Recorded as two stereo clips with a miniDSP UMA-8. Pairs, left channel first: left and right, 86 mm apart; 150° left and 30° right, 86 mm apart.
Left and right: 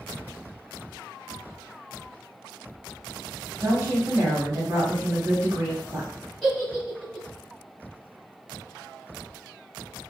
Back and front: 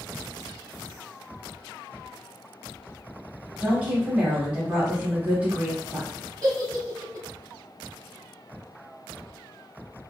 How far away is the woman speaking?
About 1.1 m.